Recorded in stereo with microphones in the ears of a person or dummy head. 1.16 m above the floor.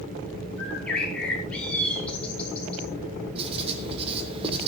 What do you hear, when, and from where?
0.6 s a bird: 5° left (ahead or behind), 6 m
3.4 s writing: 35° right (ahead or behind), 3.5 m